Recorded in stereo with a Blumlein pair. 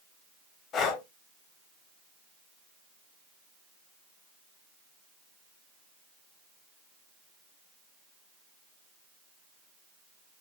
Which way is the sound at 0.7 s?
30° left.